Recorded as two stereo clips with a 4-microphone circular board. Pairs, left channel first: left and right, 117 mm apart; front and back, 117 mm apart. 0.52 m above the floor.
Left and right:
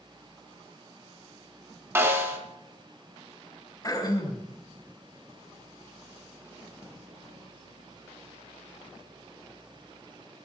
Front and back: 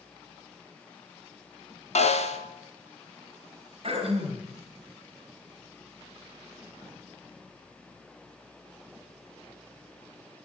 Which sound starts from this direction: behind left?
Throat clearing, at 3.8 s.